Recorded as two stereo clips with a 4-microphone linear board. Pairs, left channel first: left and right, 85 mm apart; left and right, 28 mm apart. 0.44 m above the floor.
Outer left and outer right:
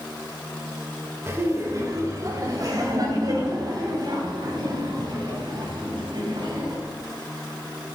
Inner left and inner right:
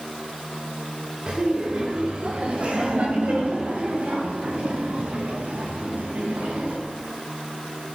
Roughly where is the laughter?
Right.